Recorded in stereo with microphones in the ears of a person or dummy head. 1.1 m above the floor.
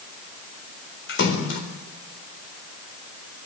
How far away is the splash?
About 4 m.